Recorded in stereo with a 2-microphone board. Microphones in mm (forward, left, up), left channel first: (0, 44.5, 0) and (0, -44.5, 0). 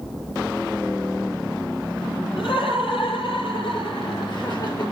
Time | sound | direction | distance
2.4 | laughter | 75° left (ahead or behind) | 7 m